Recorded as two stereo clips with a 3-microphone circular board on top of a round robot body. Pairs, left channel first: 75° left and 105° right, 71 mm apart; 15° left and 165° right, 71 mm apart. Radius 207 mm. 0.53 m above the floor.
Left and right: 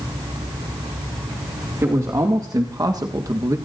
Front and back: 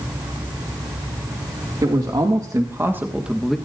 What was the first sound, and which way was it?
A man speaking, 150° right.